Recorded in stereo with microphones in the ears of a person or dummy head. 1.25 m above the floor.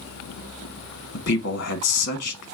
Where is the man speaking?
65° left (ahead or behind), 1.1 m.